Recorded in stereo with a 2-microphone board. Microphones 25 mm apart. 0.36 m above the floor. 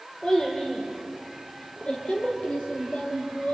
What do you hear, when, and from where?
0.2 s a child speaking: 40° left (ahead or behind), 8 m; by 3.5 s 75° left (ahead or behind), 6 m